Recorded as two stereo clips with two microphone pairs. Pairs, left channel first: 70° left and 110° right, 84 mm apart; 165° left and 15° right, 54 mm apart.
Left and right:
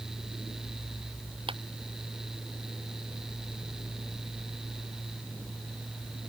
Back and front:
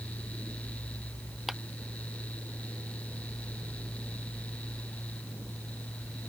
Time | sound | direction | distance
1.5 | a clap | 100° right | ?